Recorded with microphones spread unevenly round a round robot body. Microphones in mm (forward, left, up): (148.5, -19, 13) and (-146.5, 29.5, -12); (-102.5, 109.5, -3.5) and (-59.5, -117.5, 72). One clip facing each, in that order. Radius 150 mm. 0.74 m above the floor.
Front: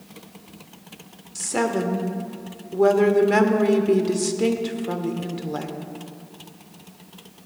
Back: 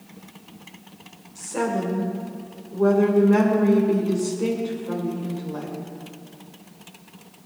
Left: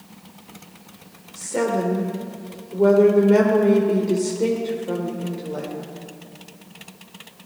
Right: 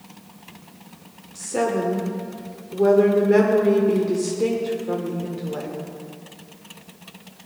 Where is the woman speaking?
10° left, 1.8 m.